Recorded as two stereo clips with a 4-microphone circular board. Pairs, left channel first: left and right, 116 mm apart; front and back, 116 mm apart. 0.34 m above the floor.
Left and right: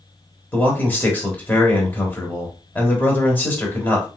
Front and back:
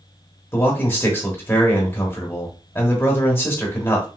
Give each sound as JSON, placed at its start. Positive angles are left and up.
{"t": 0.5, "sound": "a man speaking", "azimuth_deg": 40, "distance_m": 1.1}